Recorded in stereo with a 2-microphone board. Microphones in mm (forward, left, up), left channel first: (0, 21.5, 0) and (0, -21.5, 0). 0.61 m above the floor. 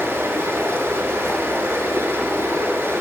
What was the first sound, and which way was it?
Running water, 70° right (ahead or behind).